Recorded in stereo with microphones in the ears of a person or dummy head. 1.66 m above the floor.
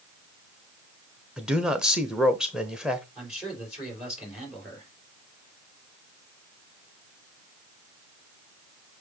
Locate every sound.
1.4 s a man speaking: centre (ahead or behind), 0.9 m
3.1 s a man speaking: 10° right (ahead or behind), 4 m